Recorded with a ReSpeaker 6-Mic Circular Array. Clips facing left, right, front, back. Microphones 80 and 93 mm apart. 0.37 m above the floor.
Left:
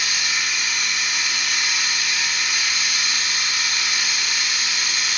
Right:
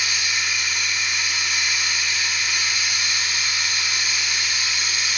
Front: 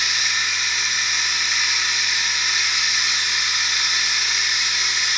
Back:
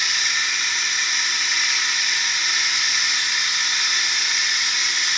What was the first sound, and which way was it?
Running water, 80° left.